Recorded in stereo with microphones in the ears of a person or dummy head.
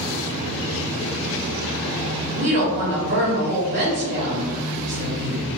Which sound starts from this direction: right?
A woman speaking, at 2.4 s.